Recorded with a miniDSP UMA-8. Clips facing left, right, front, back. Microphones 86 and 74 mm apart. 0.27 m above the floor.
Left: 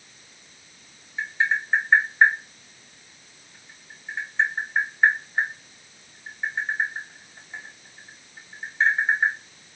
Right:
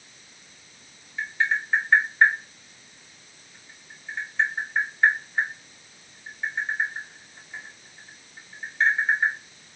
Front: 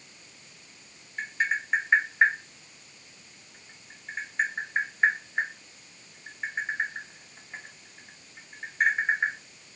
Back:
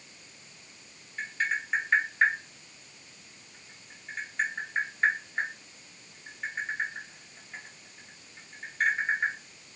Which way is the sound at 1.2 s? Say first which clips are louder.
Left 1 dB, front 2 dB; 55° left.